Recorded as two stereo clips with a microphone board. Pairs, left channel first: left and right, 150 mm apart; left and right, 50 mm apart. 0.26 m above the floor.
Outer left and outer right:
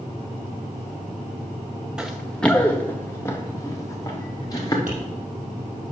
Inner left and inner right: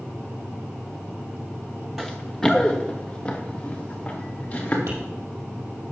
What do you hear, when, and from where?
2.0 s running footsteps: 5° right (ahead or behind), 1.0 m; by 4.8 s 25° left (ahead or behind), 3 m
4.9 s tapping: 75° right (ahead or behind), 5 m